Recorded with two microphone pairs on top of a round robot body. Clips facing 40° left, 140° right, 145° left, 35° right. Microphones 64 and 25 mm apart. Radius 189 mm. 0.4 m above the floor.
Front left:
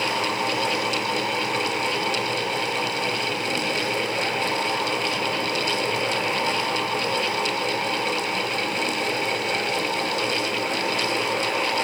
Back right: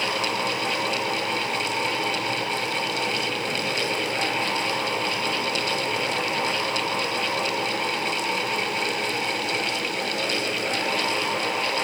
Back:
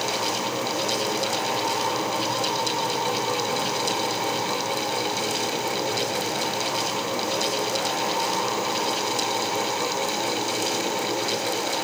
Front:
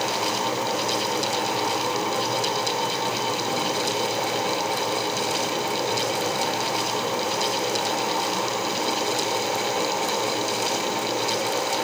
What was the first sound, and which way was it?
Only background noise.